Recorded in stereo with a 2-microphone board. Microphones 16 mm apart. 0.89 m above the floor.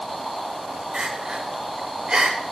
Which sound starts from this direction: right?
Crying, at 0.9 s.